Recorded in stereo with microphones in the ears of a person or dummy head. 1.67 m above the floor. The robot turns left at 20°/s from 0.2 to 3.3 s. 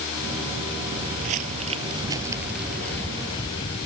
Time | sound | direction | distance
0.9 | footsteps | 50° right (ahead or behind) | ?